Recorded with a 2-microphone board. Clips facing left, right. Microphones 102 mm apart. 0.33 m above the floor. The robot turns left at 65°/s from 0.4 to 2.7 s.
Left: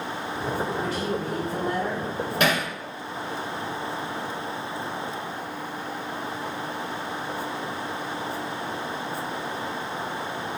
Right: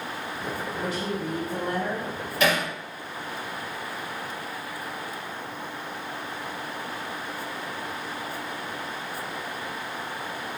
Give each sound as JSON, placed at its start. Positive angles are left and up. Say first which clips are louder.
{"t": 0.8, "sound": "a woman speaking", "louder": "left 2 dB", "azimuth_deg": -130, "distance_m": 2.0}
{"t": 2.4, "sound": "hammering", "louder": "right 1 dB", "side_deg": 65, "distance_m": 1.4}